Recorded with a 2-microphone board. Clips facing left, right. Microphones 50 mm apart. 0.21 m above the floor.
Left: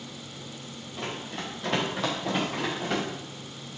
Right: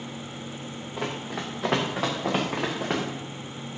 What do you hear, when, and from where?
1.0 s running footsteps: 85° right, 1.4 m; by 3.0 s 45° right (ahead or behind), 1.7 m